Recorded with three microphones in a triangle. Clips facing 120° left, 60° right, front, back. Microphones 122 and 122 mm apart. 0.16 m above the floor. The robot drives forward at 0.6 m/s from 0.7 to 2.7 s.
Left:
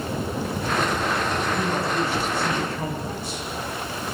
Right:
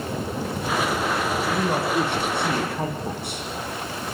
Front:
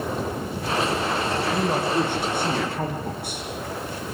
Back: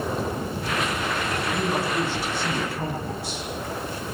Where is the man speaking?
35° right, 9 m.